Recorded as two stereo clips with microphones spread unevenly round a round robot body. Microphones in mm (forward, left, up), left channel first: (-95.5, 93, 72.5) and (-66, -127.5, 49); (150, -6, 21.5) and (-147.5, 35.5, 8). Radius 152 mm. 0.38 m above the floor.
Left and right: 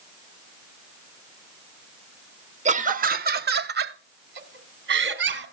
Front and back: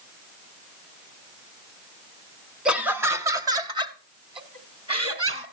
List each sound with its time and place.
2.6 s laughter: 105° right, 1.5 m; by 5.4 s 115° right, 4.5 m